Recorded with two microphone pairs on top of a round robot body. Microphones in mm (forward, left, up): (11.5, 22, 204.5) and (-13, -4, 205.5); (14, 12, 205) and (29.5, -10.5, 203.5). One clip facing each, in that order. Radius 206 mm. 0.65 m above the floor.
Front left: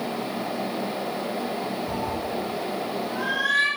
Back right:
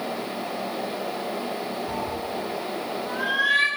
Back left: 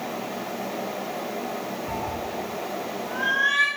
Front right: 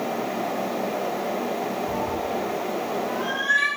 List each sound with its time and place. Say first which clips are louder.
1.9 s a cat meowing: front left 1 dB, front right 4 dB; 140° left, 2 m; by 3.7 s 160° left, 2.5 m